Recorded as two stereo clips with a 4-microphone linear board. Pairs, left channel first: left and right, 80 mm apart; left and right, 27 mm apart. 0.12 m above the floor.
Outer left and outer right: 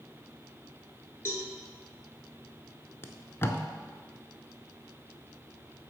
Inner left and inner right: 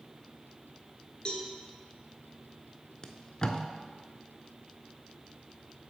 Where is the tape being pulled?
30° left (ahead or behind), 0.6 m.